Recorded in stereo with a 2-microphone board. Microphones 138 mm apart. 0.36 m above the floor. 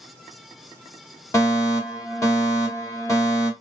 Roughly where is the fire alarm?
Left.